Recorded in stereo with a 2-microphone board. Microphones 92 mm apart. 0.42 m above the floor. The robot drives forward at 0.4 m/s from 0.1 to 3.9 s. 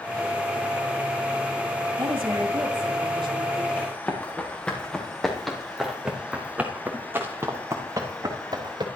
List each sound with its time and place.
2.0 s a woman speaking: 65° right (ahead or behind), 2 m; by 3.7 s 50° right (ahead or behind), 2.5 m
3.8 s running footsteps: 20° left (ahead or behind), 5 m; by 8.9 s 50° right (ahead or behind), 4 m